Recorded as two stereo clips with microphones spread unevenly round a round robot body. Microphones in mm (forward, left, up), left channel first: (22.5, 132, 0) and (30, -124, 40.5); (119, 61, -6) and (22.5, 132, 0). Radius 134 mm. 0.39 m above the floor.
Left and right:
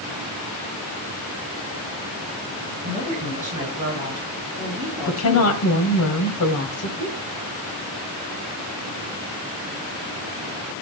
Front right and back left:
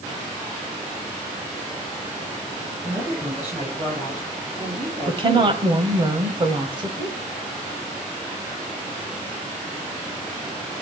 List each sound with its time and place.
2.8 s a woman speaking: 150° right, 8.5 m; by 5.6 s 175° right, 5 m
5.1 s a woman speaking: 100° left, 2.5 m